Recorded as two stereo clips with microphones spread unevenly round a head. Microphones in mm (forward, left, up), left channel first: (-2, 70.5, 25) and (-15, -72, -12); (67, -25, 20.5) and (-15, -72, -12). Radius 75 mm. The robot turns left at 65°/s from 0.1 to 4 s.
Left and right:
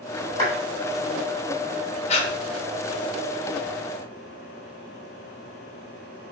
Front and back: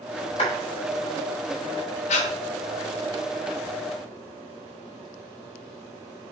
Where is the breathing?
30° left, 1.3 m; by 2.3 s 20° left, 1.3 m.